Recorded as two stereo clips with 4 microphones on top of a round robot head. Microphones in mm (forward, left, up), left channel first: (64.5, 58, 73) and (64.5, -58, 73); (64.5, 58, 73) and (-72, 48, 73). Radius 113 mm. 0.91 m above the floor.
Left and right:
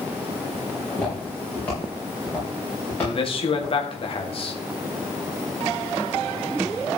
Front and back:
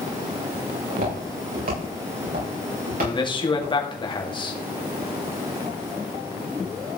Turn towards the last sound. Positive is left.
turn(degrees=55)